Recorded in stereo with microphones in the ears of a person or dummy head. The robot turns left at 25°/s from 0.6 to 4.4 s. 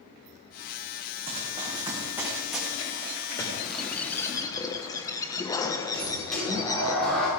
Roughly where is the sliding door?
Centre.